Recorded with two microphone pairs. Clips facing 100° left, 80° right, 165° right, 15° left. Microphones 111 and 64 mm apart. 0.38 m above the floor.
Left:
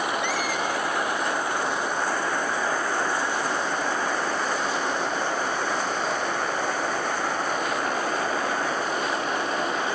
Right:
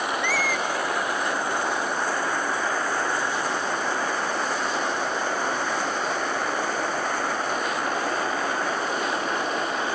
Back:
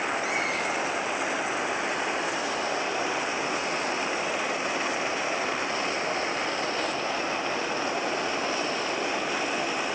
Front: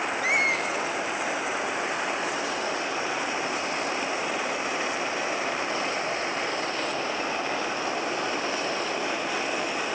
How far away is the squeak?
About 1.6 m.